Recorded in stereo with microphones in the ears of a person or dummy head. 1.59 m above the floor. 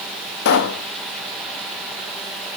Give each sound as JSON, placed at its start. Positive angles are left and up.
{"t": 0.5, "sound": "a pop", "side_deg": 40, "distance_m": 0.5}